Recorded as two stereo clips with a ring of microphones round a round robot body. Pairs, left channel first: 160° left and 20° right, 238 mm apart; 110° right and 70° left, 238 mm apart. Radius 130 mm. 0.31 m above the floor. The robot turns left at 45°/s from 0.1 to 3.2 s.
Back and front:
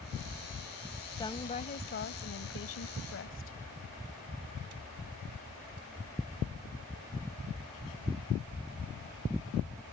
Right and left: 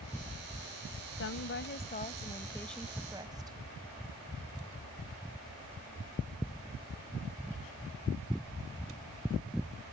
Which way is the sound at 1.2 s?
130° right.